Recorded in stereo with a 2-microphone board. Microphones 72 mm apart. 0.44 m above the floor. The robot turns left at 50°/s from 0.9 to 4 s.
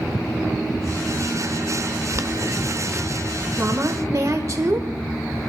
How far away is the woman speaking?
About 1.4 m.